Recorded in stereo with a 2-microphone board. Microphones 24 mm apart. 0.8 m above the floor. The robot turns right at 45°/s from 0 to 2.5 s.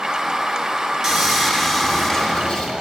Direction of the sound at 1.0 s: 20° right.